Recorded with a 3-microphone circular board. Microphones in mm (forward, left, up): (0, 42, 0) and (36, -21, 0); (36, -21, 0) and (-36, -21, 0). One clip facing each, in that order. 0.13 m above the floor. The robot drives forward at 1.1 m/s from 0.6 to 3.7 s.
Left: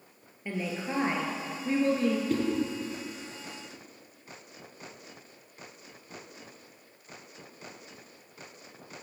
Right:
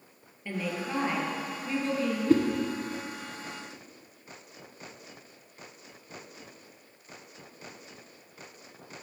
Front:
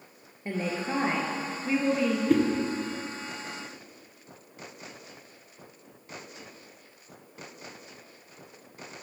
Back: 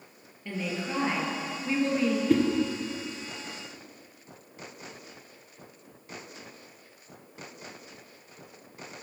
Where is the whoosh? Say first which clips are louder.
Right 7 dB, front 1 dB; 90° right, 1.7 m; by 2.4 s 95° right, 1.7 m.